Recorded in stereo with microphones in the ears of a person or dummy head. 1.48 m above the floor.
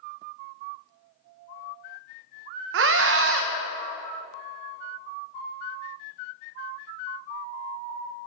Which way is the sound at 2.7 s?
80° right.